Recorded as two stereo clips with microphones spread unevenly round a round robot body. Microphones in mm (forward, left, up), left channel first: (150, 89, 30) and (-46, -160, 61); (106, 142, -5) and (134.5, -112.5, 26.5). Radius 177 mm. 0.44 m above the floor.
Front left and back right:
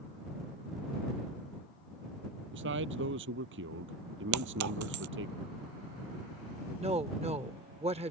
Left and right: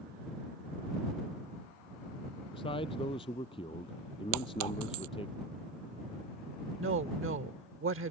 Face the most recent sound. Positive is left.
turn(degrees=-55)